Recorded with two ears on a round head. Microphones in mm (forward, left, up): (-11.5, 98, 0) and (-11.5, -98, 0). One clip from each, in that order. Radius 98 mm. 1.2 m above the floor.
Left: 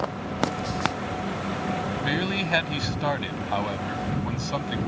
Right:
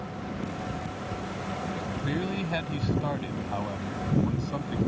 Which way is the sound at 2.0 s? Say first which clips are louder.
Left 7 dB; 60° left (ahead or behind).